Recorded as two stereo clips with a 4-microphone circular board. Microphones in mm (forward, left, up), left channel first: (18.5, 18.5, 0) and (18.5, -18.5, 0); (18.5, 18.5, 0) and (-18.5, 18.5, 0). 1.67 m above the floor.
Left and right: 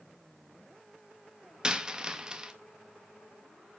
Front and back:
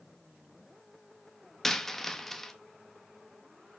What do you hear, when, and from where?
1.6 s a dropped coin: 70° right, 1.0 m